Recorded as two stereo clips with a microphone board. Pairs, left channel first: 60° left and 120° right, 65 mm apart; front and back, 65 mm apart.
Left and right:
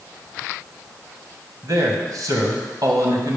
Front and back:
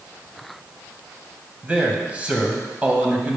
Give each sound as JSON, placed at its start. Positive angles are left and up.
{"t": 1.6, "sound": "a man speaking", "azimuth_deg": -110, "distance_m": 2.0}